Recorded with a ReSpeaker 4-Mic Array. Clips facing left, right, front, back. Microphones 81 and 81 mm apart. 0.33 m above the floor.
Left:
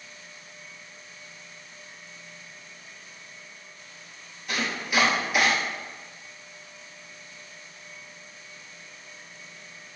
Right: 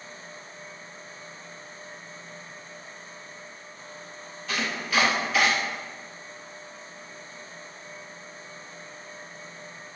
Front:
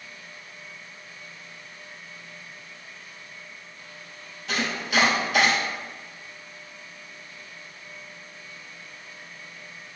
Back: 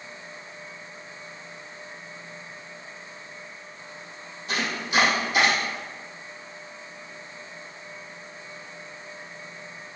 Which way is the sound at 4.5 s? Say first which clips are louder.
Even, front 1 dB; 10° left.